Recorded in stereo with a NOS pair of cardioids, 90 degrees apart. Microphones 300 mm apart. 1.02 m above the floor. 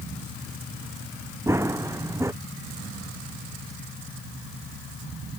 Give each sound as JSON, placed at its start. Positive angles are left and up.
{"t": 1.5, "sound": "running footsteps", "azimuth_deg": -10}